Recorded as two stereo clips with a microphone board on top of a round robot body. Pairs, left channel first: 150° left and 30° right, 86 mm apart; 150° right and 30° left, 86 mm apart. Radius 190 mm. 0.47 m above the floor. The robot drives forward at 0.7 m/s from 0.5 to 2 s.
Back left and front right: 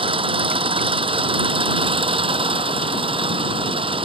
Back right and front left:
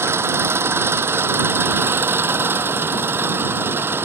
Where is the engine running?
30° right; by 4.0 s 35° right.